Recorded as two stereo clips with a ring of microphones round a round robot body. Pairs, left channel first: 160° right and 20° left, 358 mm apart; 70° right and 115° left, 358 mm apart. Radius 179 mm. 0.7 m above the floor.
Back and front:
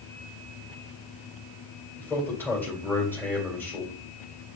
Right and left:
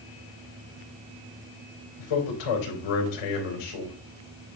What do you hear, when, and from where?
2.0 s a man speaking: 75° right, 3.5 m